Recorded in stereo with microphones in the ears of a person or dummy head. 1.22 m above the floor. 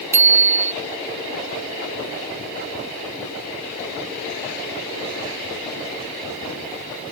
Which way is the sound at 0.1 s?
15° right (ahead or behind).